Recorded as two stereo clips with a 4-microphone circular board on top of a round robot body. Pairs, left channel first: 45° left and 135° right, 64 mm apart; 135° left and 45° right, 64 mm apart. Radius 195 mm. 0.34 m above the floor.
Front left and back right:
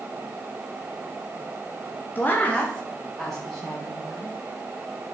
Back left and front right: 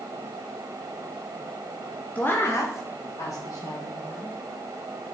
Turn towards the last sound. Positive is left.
turn(degrees=140)